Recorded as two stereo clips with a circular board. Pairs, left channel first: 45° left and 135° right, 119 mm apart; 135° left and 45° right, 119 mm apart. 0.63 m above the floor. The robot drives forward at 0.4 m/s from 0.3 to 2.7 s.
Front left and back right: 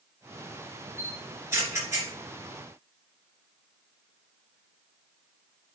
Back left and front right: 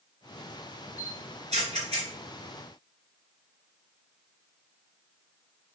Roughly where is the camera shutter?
Ahead right.